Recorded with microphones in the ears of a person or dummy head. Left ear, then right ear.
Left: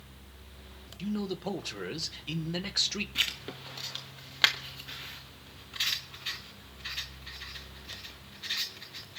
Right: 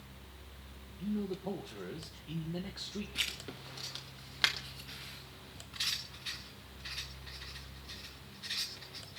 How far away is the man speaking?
About 1.4 m.